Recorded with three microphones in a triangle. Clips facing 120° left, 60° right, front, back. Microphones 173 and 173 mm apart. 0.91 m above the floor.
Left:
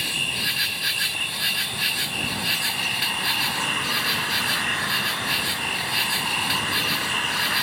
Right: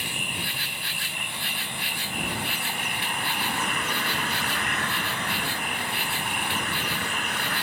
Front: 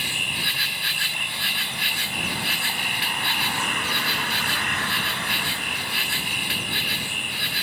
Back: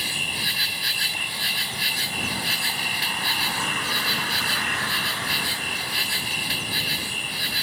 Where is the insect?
130° left.